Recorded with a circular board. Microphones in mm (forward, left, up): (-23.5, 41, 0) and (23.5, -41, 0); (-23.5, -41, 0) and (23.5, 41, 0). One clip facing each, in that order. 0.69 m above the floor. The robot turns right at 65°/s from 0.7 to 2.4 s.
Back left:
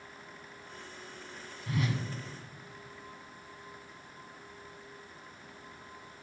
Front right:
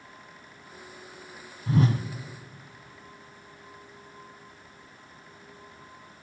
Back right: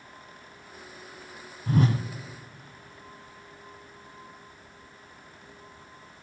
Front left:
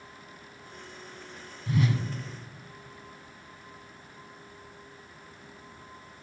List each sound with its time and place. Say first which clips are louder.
1.7 s a whoosh: front right 9 dB, back right 3 dB; 105° right, 0.7 m; by 2.0 s 80° right, 0.7 m